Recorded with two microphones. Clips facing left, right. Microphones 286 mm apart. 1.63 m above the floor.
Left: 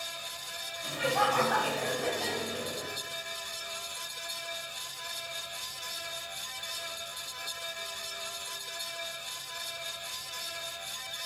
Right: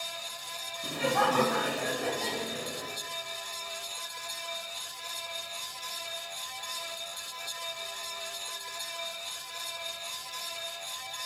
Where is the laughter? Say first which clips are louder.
Right 2 dB; 45° right (ahead or behind), 0.8 m; by 2.9 s 10° left (ahead or behind), 2 m.